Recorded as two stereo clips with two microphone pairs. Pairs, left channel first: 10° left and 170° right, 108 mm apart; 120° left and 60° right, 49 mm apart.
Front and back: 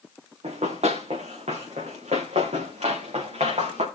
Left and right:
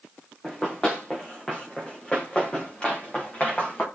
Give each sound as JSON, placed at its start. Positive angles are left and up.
{"t": 0.4, "sound": "running footsteps", "azimuth_deg": -160, "distance_m": 2.5}